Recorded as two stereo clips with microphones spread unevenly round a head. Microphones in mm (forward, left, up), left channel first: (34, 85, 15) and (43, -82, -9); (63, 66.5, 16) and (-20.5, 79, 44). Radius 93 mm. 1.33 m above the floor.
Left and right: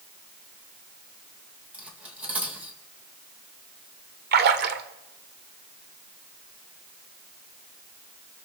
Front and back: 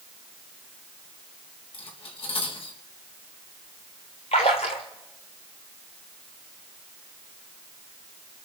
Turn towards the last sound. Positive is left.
turn(degrees=-70)